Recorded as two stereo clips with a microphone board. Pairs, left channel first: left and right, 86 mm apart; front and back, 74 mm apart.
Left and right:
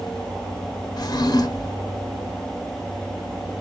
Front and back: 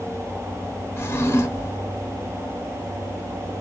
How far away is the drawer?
About 0.5 m.